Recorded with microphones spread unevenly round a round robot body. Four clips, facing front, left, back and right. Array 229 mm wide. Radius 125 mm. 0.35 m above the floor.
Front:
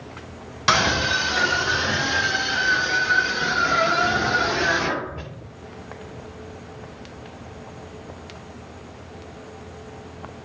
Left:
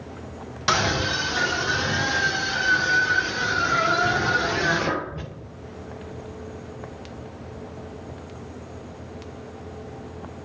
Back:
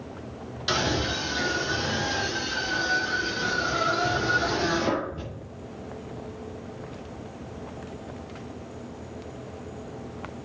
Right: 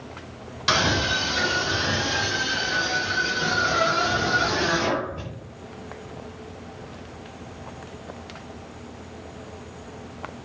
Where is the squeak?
I don't hear a squeak.